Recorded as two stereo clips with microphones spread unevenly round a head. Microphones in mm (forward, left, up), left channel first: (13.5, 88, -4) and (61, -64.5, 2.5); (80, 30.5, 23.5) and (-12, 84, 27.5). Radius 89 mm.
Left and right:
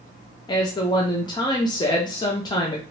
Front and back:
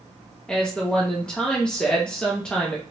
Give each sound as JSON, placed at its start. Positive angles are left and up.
{"t": 0.5, "sound": "a woman speaking", "azimuth_deg": 50, "distance_m": 0.6}